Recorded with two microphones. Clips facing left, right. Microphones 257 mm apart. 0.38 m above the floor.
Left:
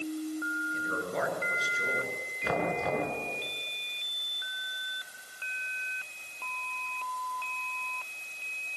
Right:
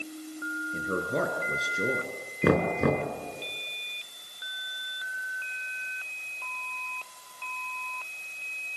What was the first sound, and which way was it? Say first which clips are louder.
A man speaking: right 6 dB; 45° right (ahead or behind).